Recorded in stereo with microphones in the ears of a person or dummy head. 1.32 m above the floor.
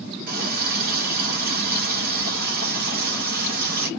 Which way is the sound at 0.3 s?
60° right (ahead or behind).